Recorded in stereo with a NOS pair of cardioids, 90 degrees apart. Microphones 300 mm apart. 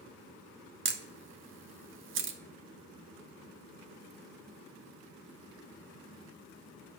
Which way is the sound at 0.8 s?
40° right.